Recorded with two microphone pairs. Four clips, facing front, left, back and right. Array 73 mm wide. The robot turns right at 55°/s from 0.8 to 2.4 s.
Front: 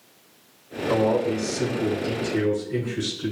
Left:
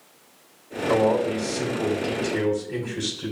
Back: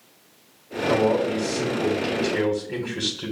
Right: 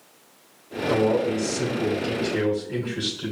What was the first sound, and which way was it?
A man speaking, 80° left.